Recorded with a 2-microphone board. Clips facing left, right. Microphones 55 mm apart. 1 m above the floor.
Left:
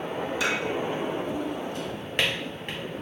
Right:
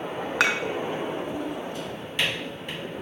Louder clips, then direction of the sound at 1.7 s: Left 1 dB; 50° left (ahead or behind).